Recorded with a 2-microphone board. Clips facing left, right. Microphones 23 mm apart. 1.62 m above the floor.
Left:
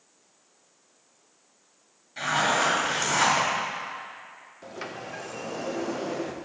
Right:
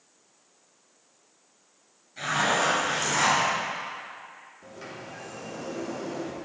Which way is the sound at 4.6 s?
50° left (ahead or behind).